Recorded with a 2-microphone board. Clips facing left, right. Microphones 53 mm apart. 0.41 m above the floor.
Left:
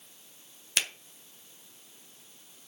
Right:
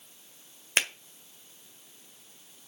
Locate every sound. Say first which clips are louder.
0.8 s a finger snap: right 4 dB; 40° right (ahead or behind), 1.7 m